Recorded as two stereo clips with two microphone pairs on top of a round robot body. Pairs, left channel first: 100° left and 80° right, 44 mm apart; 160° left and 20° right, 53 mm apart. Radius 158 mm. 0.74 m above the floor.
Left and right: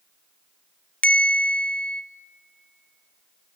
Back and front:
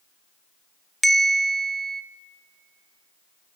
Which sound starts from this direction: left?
A bell, at 1.0 s.